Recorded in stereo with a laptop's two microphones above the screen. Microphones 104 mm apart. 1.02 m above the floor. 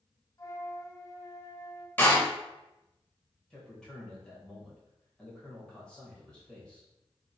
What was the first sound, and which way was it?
A flute, 35° left (ahead or behind).